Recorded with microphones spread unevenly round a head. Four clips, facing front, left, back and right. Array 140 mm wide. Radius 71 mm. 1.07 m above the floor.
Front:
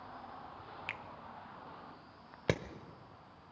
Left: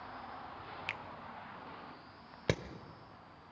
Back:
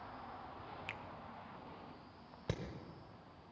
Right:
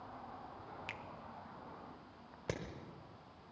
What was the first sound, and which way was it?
A finger snap, 110° left.